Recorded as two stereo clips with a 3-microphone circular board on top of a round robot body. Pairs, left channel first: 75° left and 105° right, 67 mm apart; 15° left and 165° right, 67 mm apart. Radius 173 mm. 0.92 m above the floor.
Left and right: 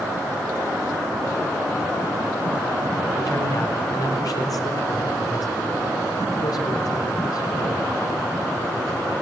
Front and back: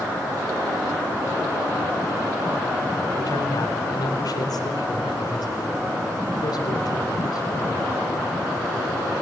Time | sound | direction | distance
3.2 | a man speaking | 45° left | 4 m